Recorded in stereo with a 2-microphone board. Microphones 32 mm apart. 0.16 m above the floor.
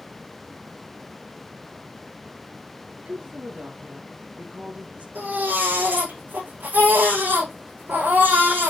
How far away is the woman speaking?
About 2.5 m.